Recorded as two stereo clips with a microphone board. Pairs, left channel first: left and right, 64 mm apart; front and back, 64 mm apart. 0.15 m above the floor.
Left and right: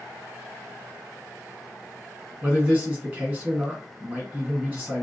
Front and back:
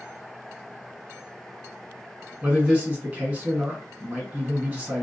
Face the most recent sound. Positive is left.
turn(degrees=-130)